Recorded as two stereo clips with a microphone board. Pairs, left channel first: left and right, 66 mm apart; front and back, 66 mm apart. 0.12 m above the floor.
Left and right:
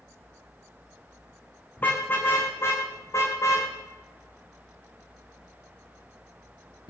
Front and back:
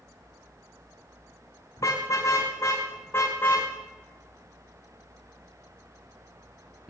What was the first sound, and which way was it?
A car horn, 30° left.